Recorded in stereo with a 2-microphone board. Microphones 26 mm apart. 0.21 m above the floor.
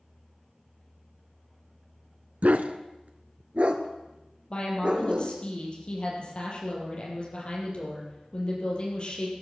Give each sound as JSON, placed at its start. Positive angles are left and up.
{"t": 2.4, "sound": "a dog barking", "side_deg": -65, "distance_m": 1.0}
{"t": 4.5, "sound": "a woman speaking", "side_deg": 40, "distance_m": 6.5}